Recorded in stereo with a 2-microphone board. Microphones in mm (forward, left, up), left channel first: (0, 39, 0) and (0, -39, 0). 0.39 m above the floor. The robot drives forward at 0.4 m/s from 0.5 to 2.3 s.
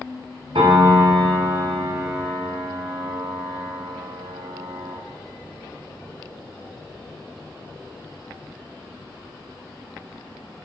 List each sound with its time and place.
0.6 s a piano: 85° right, 0.6 m; by 5.0 s 40° right (ahead or behind), 0.9 m